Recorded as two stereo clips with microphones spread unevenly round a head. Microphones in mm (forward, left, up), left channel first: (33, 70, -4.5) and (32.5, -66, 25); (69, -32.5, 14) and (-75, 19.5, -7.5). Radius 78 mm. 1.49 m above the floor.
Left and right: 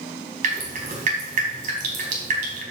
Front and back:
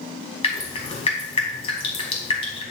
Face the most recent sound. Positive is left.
turn(degrees=-70)